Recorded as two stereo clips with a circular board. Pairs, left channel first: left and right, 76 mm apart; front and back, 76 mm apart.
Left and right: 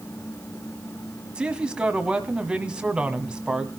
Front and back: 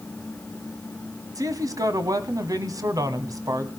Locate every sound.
1.4 s a man speaking: 165° right, 1.5 m